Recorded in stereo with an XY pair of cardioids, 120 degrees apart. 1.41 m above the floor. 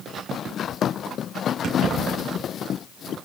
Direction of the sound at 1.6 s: 50° right.